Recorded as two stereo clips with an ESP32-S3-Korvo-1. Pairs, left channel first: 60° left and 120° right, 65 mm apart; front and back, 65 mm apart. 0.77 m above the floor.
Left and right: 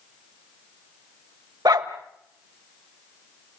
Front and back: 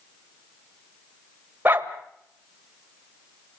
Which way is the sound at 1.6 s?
120° right.